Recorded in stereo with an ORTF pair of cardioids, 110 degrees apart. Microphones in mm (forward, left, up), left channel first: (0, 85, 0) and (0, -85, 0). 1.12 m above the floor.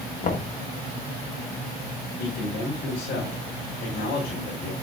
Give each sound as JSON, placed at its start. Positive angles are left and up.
{"t": 0.2, "sound": "knocking", "azimuth_deg": 45, "distance_m": 1.3}
{"t": 2.2, "sound": "a man speaking", "azimuth_deg": 70, "distance_m": 4.5}